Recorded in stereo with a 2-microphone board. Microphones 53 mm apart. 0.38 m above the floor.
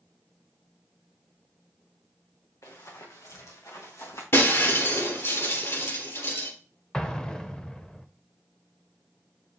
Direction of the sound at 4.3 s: 50° left (ahead or behind).